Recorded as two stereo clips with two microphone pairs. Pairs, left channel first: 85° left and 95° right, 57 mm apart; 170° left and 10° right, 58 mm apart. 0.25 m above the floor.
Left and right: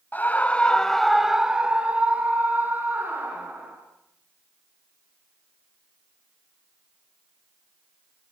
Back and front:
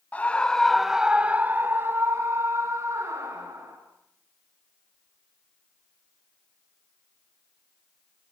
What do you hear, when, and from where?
0.1 s a scream: 120° left, 1.4 m; by 3.8 s 40° right, 3.5 m